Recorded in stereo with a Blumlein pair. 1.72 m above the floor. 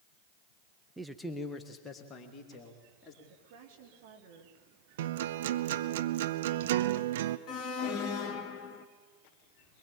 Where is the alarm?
30° left, 1.5 m.